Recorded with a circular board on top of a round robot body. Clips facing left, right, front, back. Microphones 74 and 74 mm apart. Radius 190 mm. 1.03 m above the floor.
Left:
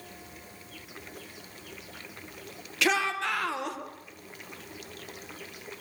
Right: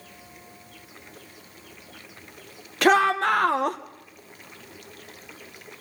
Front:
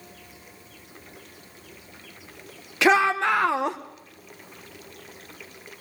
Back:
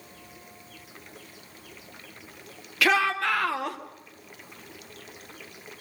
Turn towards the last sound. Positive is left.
turn(degrees=-60)